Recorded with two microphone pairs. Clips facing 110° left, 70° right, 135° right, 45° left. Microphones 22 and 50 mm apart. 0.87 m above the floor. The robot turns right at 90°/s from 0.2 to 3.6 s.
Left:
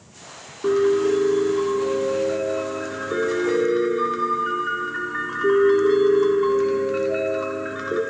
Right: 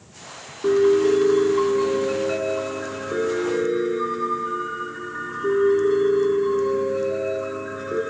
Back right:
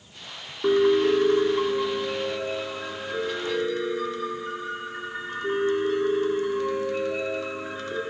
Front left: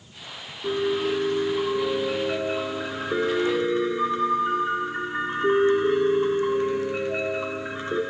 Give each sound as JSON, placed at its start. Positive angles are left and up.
{"t": 0.6, "sound": "a piano", "azimuth_deg": -160, "distance_m": 1.8}